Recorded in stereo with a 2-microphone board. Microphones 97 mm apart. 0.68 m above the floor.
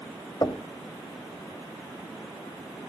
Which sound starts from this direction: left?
Knocking, at 0.4 s.